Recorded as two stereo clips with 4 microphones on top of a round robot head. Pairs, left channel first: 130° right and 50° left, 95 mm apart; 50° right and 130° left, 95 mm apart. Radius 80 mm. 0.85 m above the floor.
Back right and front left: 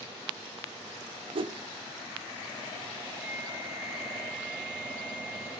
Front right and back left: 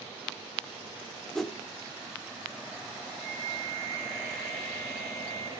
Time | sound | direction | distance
1.4 | a whoosh | 40° left | 1.4 m
3.2 | a flute | 130° left | 9 m